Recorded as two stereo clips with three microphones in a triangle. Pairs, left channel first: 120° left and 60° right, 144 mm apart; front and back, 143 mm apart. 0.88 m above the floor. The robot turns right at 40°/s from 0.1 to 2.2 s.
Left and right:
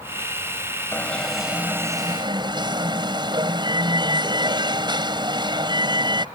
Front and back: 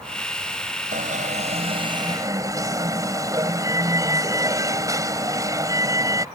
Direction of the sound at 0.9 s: 165° right.